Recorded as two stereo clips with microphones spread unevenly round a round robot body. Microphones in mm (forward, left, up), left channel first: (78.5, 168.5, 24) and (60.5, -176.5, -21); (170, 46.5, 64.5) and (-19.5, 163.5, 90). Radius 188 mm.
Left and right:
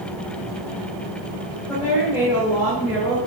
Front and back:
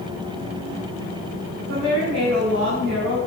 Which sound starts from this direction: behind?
A woman speaking, at 1.7 s.